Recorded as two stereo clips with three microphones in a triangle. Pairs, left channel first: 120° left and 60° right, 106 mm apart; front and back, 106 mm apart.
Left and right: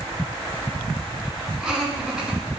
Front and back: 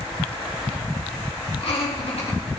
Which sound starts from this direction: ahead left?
Laughter, at 1.6 s.